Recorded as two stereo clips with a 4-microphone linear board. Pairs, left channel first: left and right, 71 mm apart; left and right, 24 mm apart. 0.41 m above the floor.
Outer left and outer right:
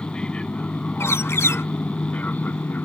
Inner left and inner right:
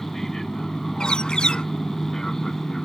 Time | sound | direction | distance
0.0 | an aircraft | 10° left (ahead or behind) | ?
1.0 | a bird | 40° left (ahead or behind) | ?